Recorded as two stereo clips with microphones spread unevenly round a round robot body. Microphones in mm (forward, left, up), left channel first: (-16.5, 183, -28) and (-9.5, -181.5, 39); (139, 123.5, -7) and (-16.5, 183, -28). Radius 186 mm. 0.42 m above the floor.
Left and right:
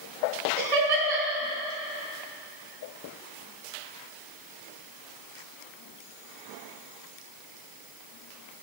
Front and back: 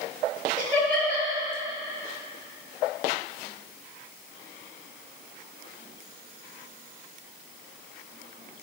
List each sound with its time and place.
0.6 s laughter: 120° right, 3.5 m